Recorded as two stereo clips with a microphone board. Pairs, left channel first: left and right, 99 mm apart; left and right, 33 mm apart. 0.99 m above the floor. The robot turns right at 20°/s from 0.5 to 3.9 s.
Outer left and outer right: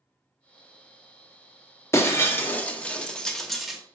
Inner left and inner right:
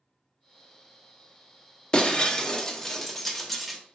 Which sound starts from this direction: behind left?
Breaking glass, at 1.9 s.